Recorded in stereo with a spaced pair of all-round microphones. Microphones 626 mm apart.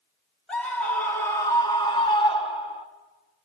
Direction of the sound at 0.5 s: Centre (ahead or behind).